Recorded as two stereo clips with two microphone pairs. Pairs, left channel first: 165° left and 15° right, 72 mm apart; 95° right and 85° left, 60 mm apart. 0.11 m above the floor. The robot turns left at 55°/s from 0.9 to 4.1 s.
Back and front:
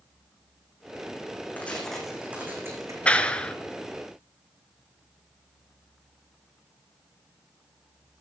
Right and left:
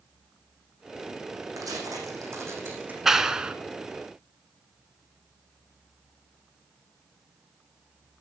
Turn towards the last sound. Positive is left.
turn(degrees=100)